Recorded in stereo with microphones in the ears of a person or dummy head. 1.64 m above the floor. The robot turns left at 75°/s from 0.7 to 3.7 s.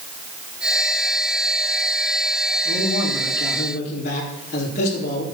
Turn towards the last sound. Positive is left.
turn(degrees=50)